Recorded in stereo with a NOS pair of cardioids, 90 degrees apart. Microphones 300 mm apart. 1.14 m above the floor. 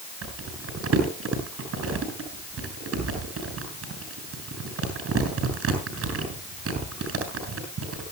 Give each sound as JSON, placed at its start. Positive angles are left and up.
{"t": 0.2, "sound": "crumpling", "azimuth_deg": -55, "distance_m": 7.0}